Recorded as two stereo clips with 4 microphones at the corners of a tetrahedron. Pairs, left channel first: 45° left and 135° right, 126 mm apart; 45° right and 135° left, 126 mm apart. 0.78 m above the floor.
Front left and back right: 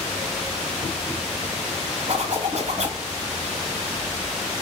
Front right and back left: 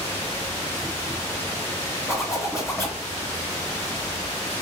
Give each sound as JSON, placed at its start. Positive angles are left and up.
{"t": 2.1, "sound": "a zipper", "azimuth_deg": -110, "distance_m": 2.0}